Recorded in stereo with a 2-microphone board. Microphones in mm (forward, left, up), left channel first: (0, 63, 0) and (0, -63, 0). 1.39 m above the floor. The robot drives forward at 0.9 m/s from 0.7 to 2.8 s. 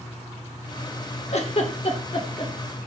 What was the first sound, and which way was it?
A giggle, 60° left (ahead or behind).